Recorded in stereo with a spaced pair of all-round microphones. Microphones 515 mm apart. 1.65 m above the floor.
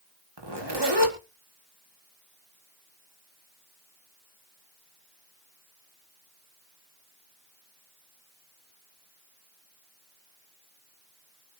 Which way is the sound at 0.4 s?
50° right (ahead or behind).